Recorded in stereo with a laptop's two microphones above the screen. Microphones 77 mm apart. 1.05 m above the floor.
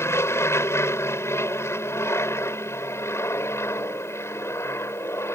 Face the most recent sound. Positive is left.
turn(degrees=35)  # may be behind; listen again after turning